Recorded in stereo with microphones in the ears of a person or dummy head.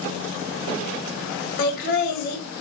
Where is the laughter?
55° left (ahead or behind), 1.4 m.